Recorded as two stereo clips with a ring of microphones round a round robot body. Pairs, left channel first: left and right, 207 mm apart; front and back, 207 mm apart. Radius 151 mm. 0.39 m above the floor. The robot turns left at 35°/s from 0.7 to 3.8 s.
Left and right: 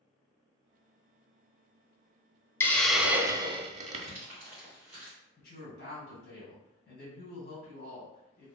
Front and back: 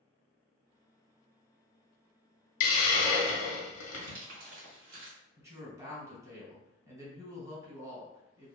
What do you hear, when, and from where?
2.6 s a hiss: 10° left, 0.5 m; by 4.1 s 30° right, 0.5 m
3.9 s crumpling: 170° right, 1.4 m
5.4 s a woman speaking: 105° left, 1.4 m